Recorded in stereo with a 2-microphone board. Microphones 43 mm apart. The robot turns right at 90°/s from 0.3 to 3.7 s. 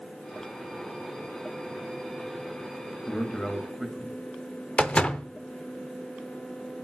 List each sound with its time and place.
3.1 s a man speaking: 125° left, 1.7 m; by 4.2 s 175° right, 1.7 m
4.8 s a door slam: 25° left (ahead or behind), 0.5 m